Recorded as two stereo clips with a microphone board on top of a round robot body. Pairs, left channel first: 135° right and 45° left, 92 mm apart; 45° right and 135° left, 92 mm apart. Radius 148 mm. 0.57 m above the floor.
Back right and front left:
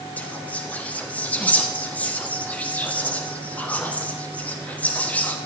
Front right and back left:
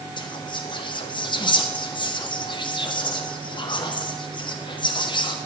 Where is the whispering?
65° right, 1.2 m.